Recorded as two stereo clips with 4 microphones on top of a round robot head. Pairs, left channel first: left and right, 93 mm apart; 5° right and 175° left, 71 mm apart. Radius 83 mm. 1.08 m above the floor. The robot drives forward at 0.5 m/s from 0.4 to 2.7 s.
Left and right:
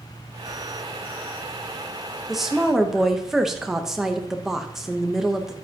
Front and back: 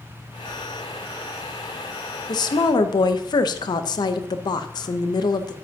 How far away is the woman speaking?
About 1.0 m.